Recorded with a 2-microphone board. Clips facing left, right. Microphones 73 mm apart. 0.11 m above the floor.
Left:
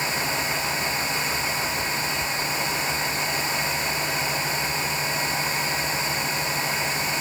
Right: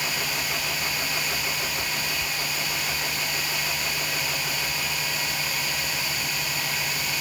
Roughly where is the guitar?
I don't hear a guitar.